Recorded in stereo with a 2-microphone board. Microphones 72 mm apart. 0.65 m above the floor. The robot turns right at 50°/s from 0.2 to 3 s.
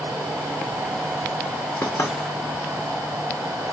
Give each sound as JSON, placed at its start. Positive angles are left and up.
{"t": 1.8, "sound": "knocking", "side_deg": 35, "distance_m": 0.9}